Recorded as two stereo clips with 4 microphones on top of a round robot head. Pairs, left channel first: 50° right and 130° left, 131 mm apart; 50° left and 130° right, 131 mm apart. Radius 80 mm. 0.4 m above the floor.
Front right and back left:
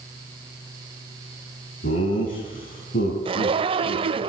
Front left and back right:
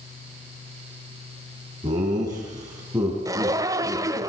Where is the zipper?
170° left, 1.4 m.